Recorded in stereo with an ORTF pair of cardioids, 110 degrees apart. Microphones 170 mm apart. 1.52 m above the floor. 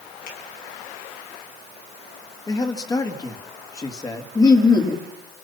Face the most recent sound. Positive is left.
turn(degrees=20)